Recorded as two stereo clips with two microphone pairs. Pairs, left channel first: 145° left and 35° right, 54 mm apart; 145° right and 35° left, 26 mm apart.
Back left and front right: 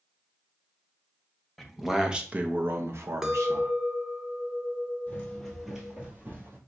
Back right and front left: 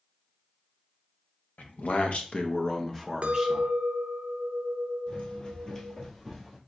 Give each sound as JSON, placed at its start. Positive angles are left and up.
{"t": 1.6, "sound": "a man speaking", "azimuth_deg": -125, "distance_m": 0.8}
{"t": 3.2, "sound": "a clink", "azimuth_deg": 40, "distance_m": 0.5}
{"t": 5.1, "sound": "running footsteps", "azimuth_deg": -160, "distance_m": 1.4}